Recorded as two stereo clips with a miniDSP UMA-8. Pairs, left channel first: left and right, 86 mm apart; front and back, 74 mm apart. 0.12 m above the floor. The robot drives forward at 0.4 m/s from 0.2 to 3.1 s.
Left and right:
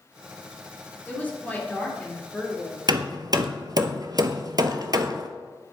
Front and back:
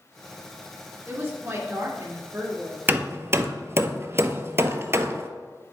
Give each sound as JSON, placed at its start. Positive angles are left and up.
{"t": 1.1, "sound": "a woman speaking", "azimuth_deg": 135, "distance_m": 1.8}
{"t": 2.9, "sound": "hammering", "azimuth_deg": -115, "distance_m": 0.5}